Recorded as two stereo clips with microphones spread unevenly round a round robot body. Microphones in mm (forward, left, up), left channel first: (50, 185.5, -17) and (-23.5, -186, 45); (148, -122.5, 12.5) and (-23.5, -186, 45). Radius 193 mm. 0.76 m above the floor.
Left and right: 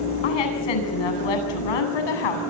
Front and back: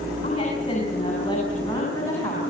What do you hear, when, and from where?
0.2 s a woman speaking: 95° left, 8 m; by 2.4 s 100° left, 7.5 m